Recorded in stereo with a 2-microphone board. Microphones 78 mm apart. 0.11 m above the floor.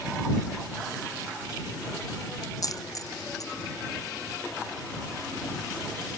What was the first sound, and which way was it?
A dropped coin, 50° left (ahead or behind).